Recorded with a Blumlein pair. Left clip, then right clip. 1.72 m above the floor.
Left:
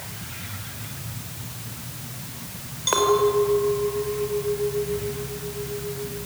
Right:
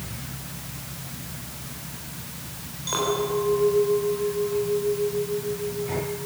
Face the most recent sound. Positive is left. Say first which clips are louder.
# left 6 dB
turn(degrees=25)